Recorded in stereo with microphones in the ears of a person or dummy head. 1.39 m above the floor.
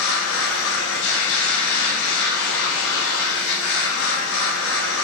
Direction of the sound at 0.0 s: 85° left.